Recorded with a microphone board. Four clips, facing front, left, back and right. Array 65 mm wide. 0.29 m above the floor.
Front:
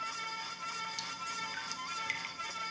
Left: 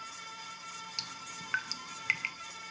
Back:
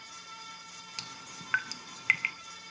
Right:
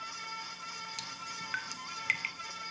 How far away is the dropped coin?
No dropped coin in this recording.